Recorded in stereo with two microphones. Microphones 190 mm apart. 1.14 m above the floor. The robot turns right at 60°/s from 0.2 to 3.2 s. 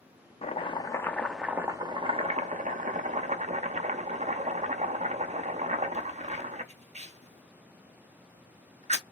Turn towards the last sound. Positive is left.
turn(degrees=-70)